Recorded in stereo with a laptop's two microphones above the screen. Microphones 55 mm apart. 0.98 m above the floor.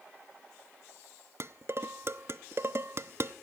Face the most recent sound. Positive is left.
turn(degrees=-50)  # may be behind; listen again after turning